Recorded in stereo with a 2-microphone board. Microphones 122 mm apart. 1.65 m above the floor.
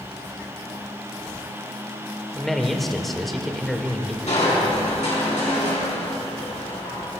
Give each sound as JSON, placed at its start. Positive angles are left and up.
{"t": 2.4, "sound": "a man speaking", "side_deg": 0, "distance_m": 1.1}
{"t": 4.3, "sound": "crushing", "side_deg": 80, "distance_m": 4.0}